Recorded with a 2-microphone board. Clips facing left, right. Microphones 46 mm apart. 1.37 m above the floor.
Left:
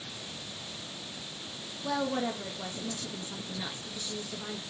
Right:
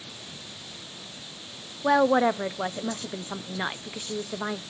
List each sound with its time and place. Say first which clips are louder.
1.8 s a woman speaking: right 11 dB; 60° right (ahead or behind), 0.7 m